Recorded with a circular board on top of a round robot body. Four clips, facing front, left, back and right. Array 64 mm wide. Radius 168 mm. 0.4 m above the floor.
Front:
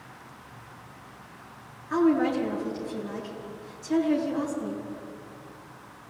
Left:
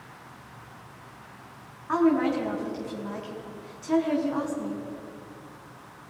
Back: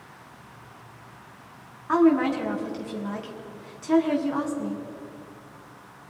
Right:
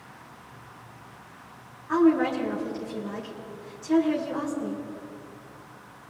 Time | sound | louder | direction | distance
1.9 | a woman speaking | right 2 dB, back 3 dB | 160° left | 5 m